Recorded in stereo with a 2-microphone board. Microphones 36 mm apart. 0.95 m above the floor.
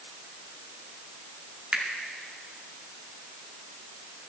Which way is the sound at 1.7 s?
35° right (ahead or behind).